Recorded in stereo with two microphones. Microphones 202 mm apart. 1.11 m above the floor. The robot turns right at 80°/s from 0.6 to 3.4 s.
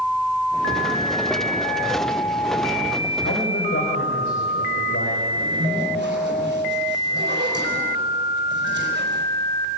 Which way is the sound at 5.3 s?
65° right (ahead or behind).